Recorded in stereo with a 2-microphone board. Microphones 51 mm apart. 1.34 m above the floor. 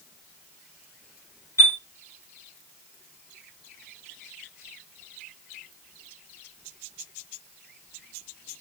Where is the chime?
80° left, 2.0 m.